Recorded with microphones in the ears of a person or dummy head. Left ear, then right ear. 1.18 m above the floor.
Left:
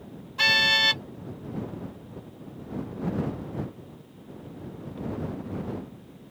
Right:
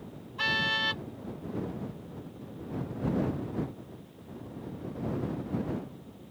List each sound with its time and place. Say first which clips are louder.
0.4 s a car horn: left 8 dB; 25° left (ahead or behind)